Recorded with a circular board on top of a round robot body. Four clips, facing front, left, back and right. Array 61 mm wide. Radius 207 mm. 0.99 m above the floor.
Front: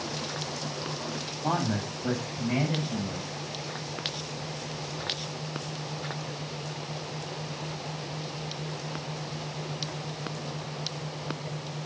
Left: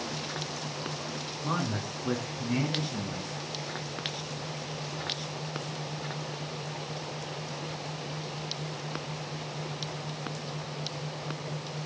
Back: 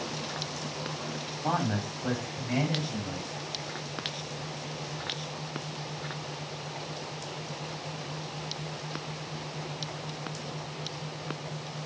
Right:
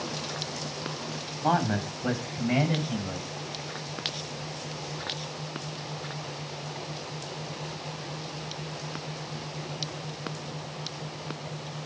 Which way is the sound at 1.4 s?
90° right.